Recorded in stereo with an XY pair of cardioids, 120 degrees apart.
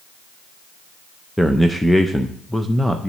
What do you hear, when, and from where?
1.4 s a man speaking: 5° left, 0.6 m